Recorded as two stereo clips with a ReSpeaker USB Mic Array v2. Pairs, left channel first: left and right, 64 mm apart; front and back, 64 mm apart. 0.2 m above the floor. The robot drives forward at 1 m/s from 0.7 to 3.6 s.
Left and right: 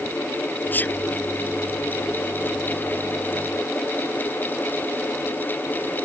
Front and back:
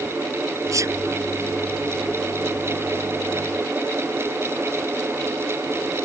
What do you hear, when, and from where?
0.7 s a sneeze: 150° left